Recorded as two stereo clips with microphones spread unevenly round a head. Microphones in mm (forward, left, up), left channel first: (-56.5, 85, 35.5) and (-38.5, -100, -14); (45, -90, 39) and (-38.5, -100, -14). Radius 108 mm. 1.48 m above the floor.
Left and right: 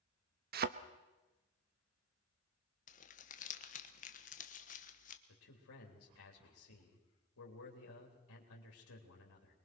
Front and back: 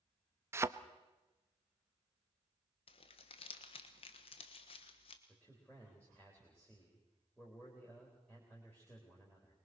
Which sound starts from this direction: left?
A man speaking, at 5.3 s.